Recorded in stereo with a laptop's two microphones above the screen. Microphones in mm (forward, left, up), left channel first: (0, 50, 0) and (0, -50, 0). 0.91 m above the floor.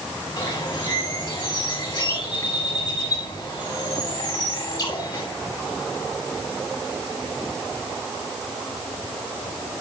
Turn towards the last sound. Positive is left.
turn(degrees=45)  # may be behind; listen again after turning